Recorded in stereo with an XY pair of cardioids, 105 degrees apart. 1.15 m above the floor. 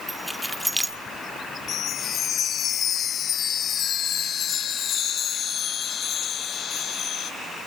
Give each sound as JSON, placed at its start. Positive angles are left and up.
{"t": 0.1, "sound": "keys jangling", "azimuth_deg": -5, "distance_m": 1.5}
{"t": 1.7, "sound": "a chime", "azimuth_deg": 60, "distance_m": 0.9}